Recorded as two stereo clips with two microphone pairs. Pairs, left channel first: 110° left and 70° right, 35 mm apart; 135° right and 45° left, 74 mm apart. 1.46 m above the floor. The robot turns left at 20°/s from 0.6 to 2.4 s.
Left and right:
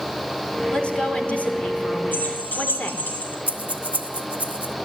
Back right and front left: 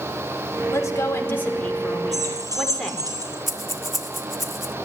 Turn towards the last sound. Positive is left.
turn(degrees=-45)